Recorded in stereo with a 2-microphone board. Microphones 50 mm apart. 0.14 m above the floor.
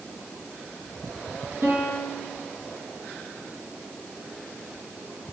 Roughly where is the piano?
Right.